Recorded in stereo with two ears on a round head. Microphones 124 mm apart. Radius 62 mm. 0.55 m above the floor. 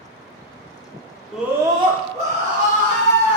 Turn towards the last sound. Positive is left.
turn(degrees=-55)  # may be behind; listen again after turning